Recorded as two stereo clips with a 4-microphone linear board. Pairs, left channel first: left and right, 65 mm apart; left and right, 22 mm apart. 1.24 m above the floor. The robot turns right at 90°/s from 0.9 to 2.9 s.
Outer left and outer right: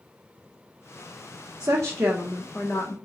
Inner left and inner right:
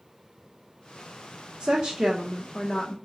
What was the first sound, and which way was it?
A woman speaking, 65° right.